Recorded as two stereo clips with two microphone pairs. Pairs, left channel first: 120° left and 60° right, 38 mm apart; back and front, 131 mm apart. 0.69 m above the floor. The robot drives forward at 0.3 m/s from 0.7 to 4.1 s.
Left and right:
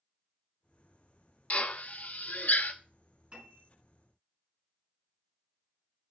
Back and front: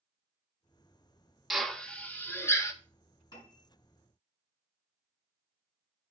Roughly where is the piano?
Behind right.